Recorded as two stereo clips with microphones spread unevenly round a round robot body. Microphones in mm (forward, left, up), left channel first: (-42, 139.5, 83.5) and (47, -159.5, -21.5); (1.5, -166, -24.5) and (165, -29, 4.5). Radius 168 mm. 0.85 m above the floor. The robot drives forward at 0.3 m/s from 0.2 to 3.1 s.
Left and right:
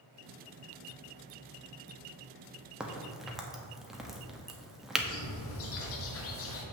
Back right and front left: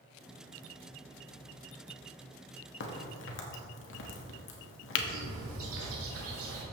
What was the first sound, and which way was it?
A crack, 150° right.